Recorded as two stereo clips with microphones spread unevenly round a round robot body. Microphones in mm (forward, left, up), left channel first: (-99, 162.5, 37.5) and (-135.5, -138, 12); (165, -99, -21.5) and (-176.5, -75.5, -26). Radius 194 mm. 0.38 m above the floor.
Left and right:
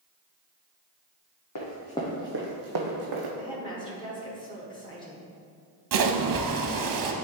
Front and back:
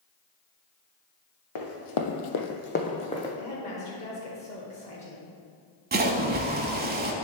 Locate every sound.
1.6 s running footsteps: 35° left, 1.3 m; by 3.3 s 80° right, 1.9 m
3.4 s a woman speaking: 25° left, 1.2 m
5.9 s a splash: 120° right, 0.8 m